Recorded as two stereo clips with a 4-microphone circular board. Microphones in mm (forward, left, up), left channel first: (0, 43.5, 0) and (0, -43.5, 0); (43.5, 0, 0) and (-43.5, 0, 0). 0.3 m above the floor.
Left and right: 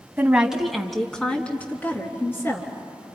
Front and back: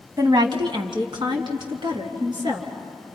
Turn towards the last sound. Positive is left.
turn(degrees=150)